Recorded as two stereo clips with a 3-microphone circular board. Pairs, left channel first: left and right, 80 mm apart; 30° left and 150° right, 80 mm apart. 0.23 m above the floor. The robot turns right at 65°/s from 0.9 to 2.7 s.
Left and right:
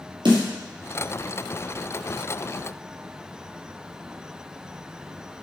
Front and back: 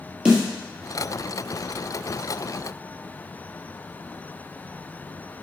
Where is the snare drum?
70° right, 3 m.